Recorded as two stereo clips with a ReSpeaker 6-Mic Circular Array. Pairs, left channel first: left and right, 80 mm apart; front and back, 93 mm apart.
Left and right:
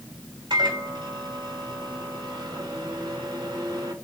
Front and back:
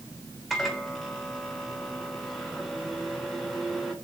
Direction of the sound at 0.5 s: 85° right.